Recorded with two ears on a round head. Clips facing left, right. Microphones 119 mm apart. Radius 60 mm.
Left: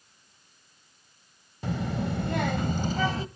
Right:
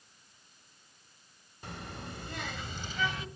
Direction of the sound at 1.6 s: 65° left (ahead or behind).